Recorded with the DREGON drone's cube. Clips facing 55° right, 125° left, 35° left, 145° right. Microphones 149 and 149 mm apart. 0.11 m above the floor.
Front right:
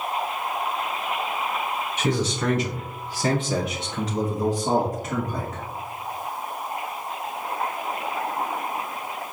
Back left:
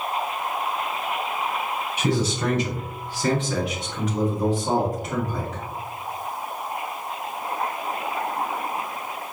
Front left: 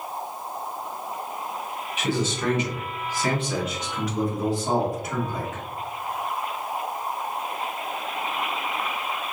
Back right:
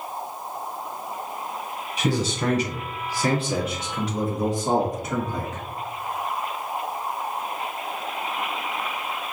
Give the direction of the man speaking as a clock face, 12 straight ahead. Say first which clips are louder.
Back left 1 dB, back right 2 dB; 6 o'clock.